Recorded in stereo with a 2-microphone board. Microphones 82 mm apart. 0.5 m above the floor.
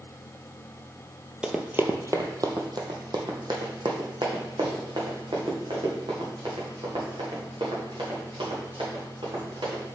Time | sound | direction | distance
1.4 | running footsteps | 10° right (ahead or behind) | 0.7 m